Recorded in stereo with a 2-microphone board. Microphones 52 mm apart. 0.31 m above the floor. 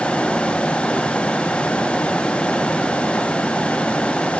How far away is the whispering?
No whispering in this recording.